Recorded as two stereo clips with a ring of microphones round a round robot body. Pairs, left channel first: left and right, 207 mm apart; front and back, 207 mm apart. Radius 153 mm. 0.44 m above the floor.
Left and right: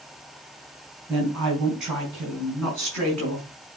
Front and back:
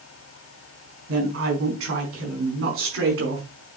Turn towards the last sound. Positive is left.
turn(degrees=175)